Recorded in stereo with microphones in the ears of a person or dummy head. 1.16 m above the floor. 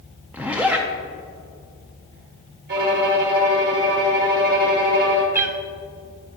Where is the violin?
60° right (ahead or behind), 1.8 m.